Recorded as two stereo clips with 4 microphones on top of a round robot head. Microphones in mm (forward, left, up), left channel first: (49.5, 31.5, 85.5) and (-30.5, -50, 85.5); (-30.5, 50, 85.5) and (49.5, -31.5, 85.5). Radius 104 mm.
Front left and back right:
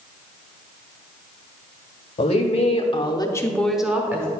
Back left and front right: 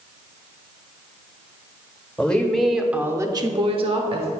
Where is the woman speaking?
55° left, 1.4 m; by 4.3 s 70° right, 1.2 m.